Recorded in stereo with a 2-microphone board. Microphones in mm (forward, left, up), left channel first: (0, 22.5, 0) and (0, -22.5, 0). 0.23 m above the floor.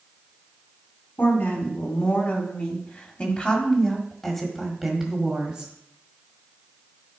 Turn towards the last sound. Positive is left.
turn(degrees=-20)  # may be behind; listen again after turning